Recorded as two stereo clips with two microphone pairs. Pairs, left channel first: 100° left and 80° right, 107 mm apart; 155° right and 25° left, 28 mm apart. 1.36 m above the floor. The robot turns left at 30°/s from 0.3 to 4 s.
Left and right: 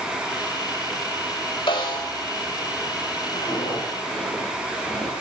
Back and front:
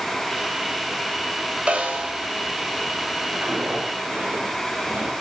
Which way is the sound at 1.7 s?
70° left.